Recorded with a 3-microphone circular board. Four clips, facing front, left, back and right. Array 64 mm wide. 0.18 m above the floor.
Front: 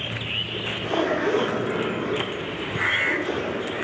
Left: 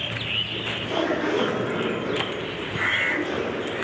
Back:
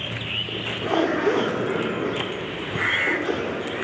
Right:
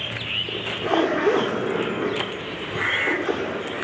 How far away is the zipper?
About 8.5 m.